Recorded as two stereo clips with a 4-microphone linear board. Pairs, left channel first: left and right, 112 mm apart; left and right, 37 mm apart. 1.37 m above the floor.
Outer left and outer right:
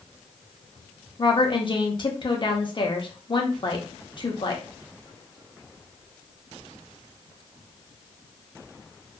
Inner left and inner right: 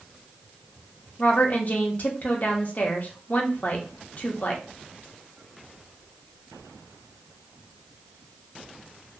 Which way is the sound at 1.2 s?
45° left (ahead or behind).